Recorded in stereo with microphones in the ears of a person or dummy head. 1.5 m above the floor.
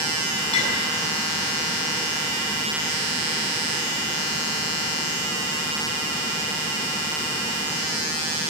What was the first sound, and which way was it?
A clink, 35° left (ahead or behind).